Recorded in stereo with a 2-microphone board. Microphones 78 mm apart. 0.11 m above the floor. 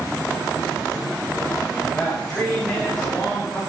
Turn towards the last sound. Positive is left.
turn(degrees=5)  # may be behind; listen again after turning